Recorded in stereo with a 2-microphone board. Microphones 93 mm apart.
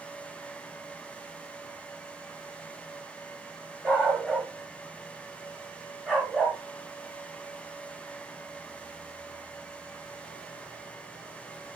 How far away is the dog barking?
About 9.5 m.